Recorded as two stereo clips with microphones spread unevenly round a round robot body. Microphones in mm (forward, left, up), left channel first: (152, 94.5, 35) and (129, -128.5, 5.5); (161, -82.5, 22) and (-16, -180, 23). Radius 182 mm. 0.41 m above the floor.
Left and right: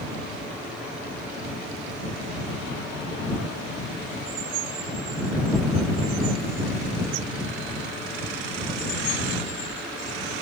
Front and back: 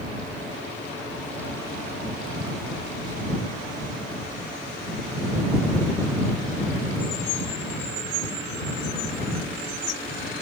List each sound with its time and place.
Only background noise.